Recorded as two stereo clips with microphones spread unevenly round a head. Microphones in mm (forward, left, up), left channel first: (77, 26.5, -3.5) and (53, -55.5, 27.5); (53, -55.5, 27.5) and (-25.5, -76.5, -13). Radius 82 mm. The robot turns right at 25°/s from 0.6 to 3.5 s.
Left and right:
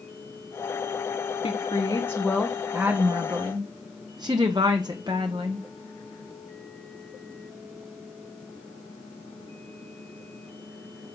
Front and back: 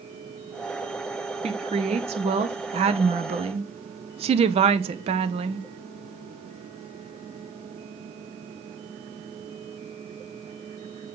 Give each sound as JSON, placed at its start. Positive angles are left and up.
{"t": 1.4, "sound": "a woman speaking", "azimuth_deg": 140, "distance_m": 0.8}